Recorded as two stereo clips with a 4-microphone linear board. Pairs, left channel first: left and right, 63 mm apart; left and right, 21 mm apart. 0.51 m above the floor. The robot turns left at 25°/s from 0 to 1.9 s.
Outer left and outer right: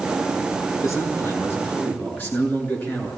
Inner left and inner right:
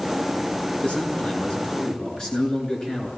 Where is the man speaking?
60° left (ahead or behind), 7.5 m; by 3.1 s 35° left (ahead or behind), 7.5 m.